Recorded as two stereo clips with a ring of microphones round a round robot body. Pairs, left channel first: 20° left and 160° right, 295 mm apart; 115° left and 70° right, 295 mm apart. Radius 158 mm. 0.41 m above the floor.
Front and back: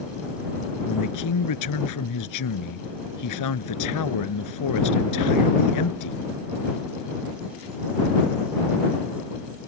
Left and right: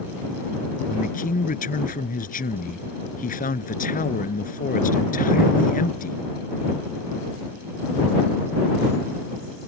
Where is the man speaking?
50° left.